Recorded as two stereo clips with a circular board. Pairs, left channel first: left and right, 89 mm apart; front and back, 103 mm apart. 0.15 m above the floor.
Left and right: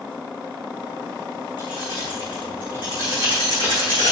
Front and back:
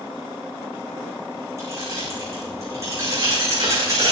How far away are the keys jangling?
About 7.5 m.